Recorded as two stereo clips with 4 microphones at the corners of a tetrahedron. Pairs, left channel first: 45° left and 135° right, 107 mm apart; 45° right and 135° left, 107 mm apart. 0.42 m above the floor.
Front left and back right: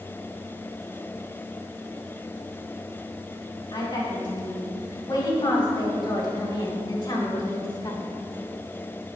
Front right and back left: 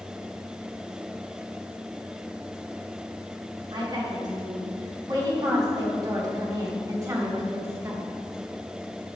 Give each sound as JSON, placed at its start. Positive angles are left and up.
{"t": 3.7, "sound": "a woman speaking", "azimuth_deg": 90, "distance_m": 3.5}